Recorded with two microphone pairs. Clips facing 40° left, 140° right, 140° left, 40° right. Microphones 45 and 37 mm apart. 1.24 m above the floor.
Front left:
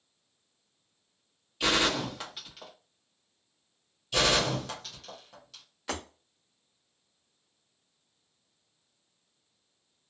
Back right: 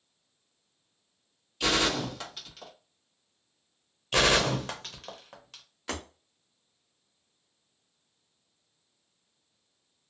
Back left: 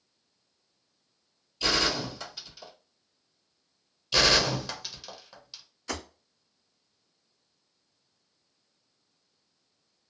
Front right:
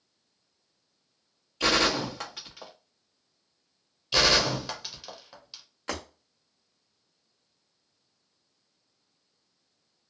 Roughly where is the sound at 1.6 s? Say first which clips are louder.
Even, front right 3 dB; ahead right.